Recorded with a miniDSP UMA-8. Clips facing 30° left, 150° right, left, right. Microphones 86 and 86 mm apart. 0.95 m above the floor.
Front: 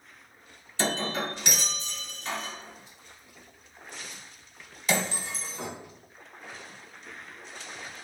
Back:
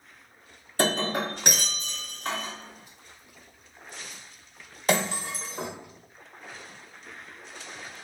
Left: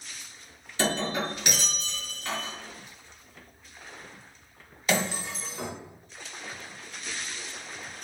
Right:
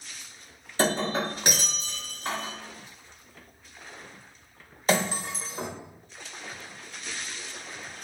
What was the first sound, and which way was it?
Breaking glass, 130° right.